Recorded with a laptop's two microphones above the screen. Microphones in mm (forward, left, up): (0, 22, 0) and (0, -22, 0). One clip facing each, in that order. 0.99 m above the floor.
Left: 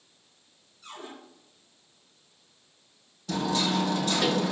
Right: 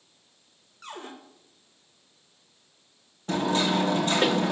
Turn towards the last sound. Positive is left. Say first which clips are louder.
# right 3 dB
turn(degrees=-40)  # may be behind; listen again after turning